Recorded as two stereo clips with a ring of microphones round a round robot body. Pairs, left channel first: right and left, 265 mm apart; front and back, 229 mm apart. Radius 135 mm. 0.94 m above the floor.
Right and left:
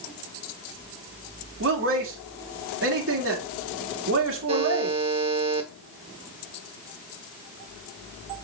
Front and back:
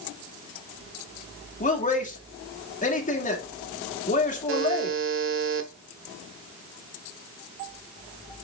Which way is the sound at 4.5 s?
160° left.